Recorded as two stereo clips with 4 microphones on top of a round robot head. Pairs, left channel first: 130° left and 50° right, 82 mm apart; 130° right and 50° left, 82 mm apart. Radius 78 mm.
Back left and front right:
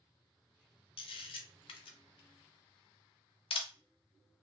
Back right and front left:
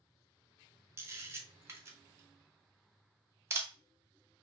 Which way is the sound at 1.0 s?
110° left.